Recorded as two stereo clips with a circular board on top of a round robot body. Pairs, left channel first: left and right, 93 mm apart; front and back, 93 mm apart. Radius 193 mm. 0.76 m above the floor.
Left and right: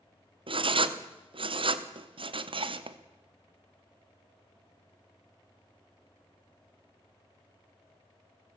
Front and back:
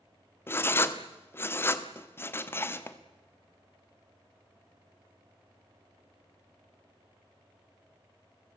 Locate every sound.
0.5 s writing: 65° right, 1.2 m